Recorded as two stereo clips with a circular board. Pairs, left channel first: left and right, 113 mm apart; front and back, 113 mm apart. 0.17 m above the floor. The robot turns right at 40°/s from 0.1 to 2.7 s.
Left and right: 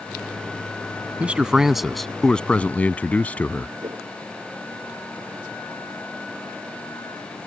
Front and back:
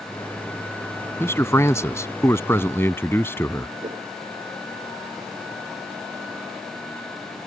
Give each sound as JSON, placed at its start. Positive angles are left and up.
{"t": 1.2, "sound": "a man speaking", "azimuth_deg": -25}
{"t": 3.8, "sound": "a whoosh", "azimuth_deg": -145}